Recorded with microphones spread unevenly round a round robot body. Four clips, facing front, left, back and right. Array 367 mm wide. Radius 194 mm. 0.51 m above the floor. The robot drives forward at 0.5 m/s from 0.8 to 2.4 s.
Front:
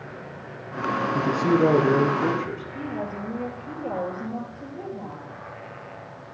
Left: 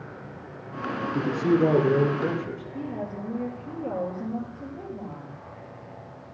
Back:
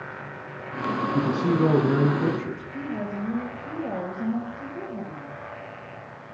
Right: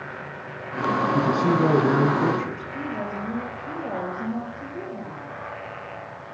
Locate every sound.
1.1 s a man speaking: 135° right, 5 m; by 2.6 s 140° right, 5.5 m
2.7 s a woman speaking: 175° right, 9 m